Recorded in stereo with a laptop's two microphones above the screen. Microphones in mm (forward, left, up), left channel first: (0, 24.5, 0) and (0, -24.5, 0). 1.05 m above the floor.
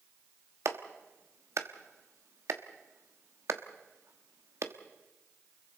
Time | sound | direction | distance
0.7 | a clap | 85° right | 1.2 m